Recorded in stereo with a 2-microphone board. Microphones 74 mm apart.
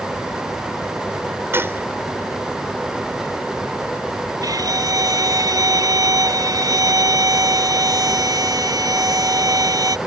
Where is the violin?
50° right (ahead or behind).